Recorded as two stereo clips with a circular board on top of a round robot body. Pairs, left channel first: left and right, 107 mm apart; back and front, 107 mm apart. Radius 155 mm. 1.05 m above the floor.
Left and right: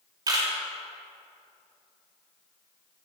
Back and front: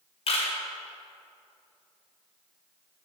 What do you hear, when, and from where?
0.3 s a camera shutter: 145° right, 1.3 m